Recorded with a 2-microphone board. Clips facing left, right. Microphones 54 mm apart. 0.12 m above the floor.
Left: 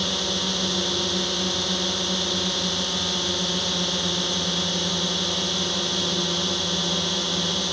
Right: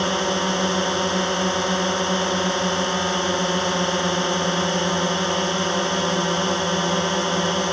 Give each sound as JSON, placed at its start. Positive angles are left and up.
{"t": 0.0, "sound": "a drone", "side_deg": -35}